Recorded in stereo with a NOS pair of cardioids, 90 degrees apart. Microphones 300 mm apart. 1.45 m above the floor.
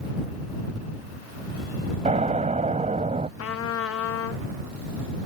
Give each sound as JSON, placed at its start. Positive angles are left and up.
{"t": 2.0, "sound": "an explosion", "azimuth_deg": -25}
{"t": 3.4, "sound": "a trumpet", "azimuth_deg": 55}